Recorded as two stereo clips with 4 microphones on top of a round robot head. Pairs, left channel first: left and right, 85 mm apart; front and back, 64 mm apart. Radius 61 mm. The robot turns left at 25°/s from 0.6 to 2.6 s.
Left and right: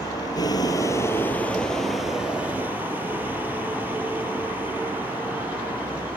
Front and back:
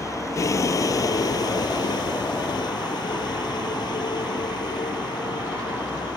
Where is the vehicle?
35° left; by 6.2 s 15° right.